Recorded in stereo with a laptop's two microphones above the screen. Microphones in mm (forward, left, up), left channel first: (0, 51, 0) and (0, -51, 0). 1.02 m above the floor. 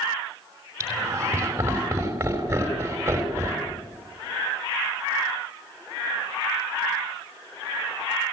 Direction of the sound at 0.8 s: 25° right (ahead or behind).